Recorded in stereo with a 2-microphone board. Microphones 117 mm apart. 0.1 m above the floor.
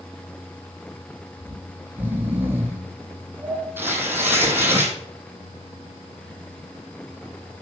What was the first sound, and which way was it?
Snoring, 15° right (ahead or behind).